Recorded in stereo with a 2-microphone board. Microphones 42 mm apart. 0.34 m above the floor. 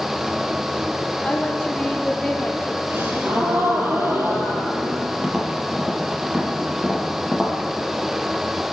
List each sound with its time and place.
1.2 s a woman speaking: 20° left (ahead or behind), 6 m; by 2.8 s 10° left (ahead or behind), 6.5 m
2.9 s a gasp: 70° right (ahead or behind), 7 m
5.2 s tapping: 15° right (ahead or behind), 5 m